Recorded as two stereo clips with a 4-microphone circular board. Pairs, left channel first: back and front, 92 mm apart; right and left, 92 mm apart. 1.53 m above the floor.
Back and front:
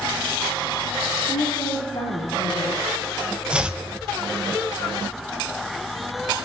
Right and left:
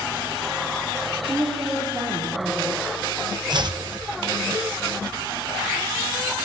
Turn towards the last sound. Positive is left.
turn(degrees=80)